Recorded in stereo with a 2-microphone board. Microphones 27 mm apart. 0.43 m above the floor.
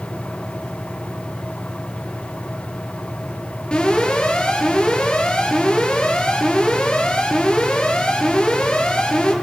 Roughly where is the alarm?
Left.